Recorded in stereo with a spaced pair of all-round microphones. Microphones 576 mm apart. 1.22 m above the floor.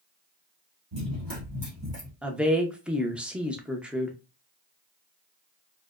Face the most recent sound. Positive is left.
turn(degrees=0)  # may be behind; listen again after turning